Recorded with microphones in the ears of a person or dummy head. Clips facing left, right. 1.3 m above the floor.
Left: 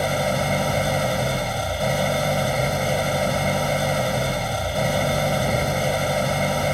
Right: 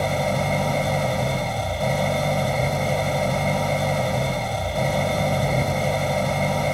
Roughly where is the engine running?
Centre.